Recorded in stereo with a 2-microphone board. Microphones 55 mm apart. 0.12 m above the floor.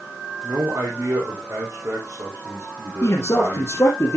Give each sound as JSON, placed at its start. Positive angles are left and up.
{"t": 0.4, "sound": "a man speaking", "side_deg": -65, "distance_m": 5.0}
{"t": 3.0, "sound": "a man speaking", "side_deg": 55, "distance_m": 2.5}